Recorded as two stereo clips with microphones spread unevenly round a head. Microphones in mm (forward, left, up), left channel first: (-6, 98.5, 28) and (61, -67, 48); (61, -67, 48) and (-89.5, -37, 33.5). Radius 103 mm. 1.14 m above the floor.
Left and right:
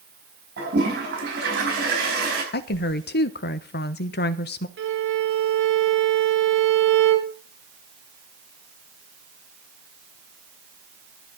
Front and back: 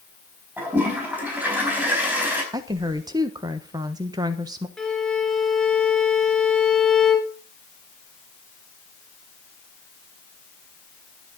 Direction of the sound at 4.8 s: 100° right.